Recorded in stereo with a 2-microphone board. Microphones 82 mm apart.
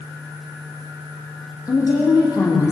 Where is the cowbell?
I don't hear a cowbell.